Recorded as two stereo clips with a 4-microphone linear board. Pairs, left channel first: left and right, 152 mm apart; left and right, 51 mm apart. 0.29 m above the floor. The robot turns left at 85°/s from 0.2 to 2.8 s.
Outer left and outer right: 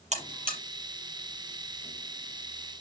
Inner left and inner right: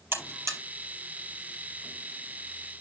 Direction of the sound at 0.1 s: 50° right (ahead or behind).